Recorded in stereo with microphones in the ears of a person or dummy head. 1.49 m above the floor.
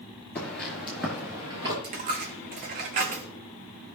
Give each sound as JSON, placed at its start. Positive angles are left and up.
{"t": 0.3, "sound": "footsteps", "side_deg": 10, "distance_m": 1.5}
{"t": 1.8, "sound": "a dropped coin", "side_deg": -40, "distance_m": 1.2}